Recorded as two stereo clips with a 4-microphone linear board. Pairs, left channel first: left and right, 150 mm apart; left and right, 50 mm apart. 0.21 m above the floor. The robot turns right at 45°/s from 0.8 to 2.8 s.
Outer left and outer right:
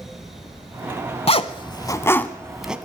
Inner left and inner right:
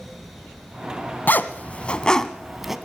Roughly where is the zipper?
Left.